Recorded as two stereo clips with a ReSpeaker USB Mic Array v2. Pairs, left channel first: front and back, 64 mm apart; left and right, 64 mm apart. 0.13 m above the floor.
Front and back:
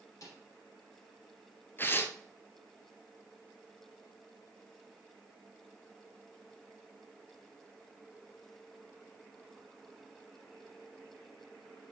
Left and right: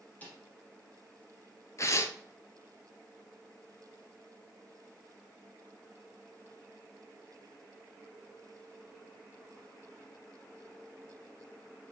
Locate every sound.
0.2 s a snare drum: 25° left, 3 m
1.8 s tearing paper: 55° left, 0.8 m